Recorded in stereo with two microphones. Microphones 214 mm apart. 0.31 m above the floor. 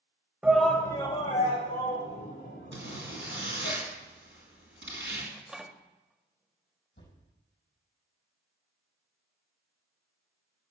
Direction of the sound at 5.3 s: 5° right (ahead or behind).